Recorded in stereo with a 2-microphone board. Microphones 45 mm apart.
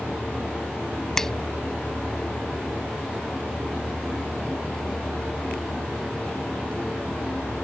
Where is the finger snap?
10° left (ahead or behind).